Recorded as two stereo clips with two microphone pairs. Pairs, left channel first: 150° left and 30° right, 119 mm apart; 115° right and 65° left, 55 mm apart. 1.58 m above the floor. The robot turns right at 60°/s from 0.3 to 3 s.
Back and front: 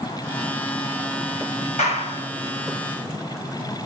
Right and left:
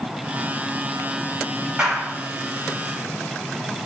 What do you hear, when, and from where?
1.8 s a clap: 145° left, 5.5 m; by 2.3 s 175° left, 5.5 m